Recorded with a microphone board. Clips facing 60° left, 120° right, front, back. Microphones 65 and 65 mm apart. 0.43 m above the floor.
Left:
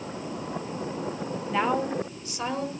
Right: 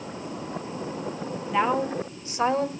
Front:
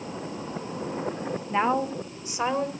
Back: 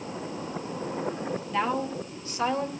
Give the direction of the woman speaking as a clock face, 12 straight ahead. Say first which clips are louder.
Right 2 dB, front 4 dB; 1 o'clock.